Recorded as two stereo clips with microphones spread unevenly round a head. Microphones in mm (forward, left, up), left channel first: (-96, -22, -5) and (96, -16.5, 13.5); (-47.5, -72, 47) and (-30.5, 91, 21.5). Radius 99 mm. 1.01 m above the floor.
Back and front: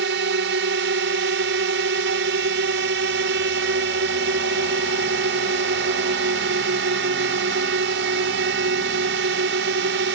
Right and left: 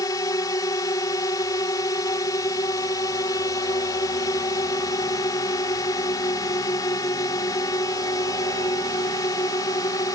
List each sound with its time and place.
0.0 s a drone: 25° right